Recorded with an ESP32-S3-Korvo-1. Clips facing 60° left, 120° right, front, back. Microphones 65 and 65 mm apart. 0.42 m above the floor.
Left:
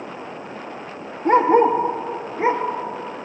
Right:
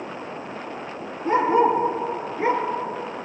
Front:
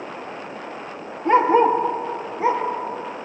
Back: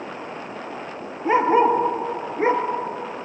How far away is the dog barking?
About 3.5 m.